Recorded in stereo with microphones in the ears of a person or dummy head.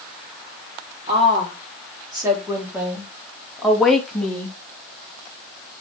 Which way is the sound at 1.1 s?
35° right (ahead or behind).